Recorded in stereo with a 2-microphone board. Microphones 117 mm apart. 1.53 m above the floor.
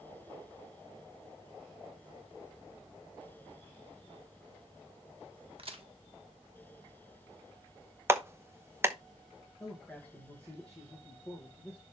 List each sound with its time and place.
5.6 s a crack: 55° right (ahead or behind), 1.4 m
8.1 s a clap: 20° right (ahead or behind), 0.9 m
9.6 s a man speaking: 10° left (ahead or behind), 2 m